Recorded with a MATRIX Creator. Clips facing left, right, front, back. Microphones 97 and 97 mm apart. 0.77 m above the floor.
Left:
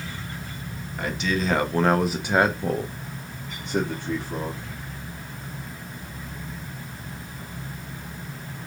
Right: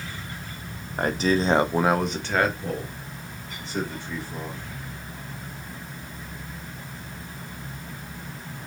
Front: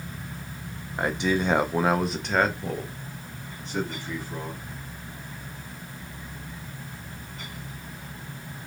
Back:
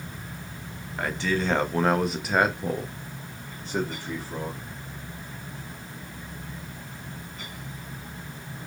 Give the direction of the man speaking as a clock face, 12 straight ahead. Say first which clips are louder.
Right 4 dB, front 2 dB; 2 o'clock.